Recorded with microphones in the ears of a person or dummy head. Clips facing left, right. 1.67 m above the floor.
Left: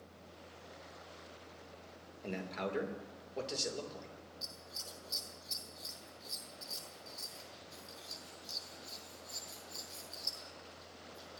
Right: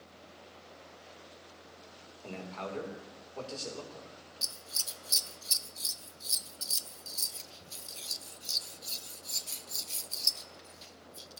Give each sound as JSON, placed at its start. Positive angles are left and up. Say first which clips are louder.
{"t": 2.2, "sound": "a man speaking", "louder": "left 1 dB", "side_deg": 25, "distance_m": 3.0}
{"t": 4.4, "sound": "scissors", "louder": "right 1 dB", "side_deg": -40, "distance_m": 0.6}